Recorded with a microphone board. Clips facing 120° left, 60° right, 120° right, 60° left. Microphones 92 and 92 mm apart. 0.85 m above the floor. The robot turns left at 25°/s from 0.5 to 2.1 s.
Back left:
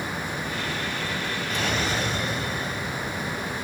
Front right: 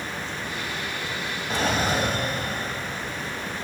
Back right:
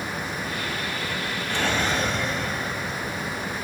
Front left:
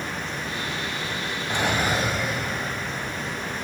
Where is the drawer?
10° right, 1.6 m; by 3.6 s 25° right, 1.6 m.